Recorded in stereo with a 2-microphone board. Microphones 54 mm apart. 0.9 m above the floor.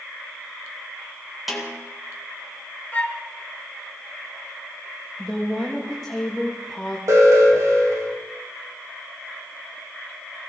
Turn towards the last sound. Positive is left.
turn(degrees=-70)  # may be behind; listen again after turning